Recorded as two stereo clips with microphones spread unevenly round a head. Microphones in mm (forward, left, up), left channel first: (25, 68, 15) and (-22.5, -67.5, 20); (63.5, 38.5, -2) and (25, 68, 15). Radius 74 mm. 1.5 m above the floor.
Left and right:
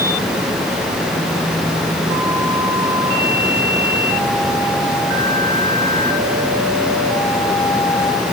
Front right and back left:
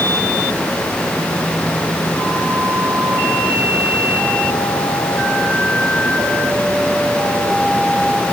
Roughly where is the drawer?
No drawer in this recording.